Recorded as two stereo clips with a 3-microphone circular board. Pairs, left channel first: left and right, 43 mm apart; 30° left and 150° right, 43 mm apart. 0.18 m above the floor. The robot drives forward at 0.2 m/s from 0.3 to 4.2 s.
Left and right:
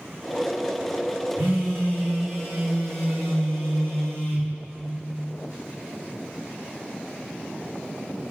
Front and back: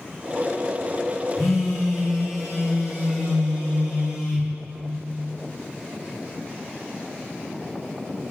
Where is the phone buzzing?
65° right, 1.9 m; by 4.5 s 80° right, 1.7 m.